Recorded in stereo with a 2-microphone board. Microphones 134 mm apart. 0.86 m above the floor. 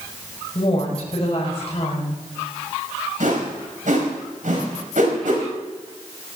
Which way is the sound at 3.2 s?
70° right (ahead or behind).